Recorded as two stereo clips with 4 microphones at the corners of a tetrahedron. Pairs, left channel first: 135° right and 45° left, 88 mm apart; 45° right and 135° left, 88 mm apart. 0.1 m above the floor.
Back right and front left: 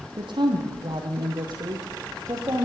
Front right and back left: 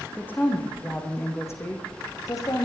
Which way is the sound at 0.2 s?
25° left.